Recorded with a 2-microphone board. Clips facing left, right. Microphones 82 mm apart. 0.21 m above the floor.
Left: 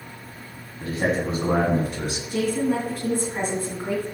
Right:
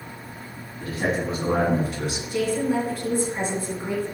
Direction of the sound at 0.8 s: 30° left (ahead or behind).